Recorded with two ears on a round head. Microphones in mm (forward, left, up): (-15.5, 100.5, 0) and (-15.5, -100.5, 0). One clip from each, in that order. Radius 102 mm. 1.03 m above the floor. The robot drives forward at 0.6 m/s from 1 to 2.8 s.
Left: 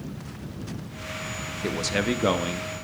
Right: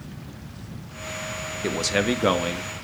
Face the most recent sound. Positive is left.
turn(degrees=-5)  # may be behind; listen again after turning